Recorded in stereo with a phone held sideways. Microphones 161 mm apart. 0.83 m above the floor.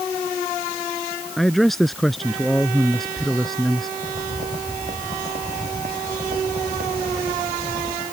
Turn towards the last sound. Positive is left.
turn(degrees=-80)